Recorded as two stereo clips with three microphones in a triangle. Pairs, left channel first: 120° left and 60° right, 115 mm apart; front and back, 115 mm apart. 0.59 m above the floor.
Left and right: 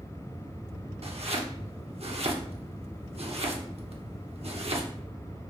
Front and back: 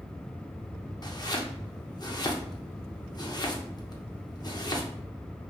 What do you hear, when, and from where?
1.0 s chopping: 50° right, 0.6 m